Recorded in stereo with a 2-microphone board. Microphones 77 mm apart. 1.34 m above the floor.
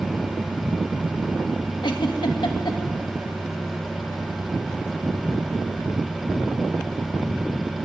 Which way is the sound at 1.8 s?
80° left.